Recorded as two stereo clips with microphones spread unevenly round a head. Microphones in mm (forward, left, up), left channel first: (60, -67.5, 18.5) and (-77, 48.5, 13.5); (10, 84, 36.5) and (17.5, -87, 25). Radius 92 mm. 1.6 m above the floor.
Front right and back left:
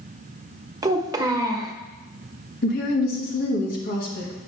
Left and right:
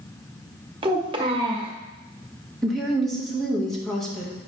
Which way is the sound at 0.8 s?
150° right.